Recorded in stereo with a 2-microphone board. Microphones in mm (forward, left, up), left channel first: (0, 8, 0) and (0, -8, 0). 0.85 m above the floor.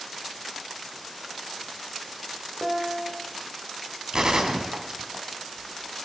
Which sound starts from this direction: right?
A gunshot, at 4.1 s.